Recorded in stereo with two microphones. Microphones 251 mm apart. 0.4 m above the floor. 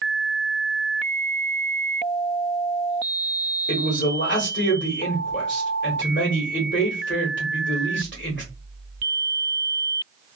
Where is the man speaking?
50° left (ahead or behind), 1.4 m.